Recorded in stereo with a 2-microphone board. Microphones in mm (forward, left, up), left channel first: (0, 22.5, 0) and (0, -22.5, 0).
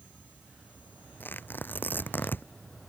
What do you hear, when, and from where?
1.2 s tearing paper: 50° left (ahead or behind)